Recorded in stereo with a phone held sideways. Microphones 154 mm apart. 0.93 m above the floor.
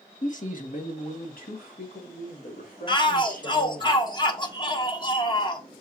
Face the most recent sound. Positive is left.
turn(degrees=30)  # may be behind; listen again after turning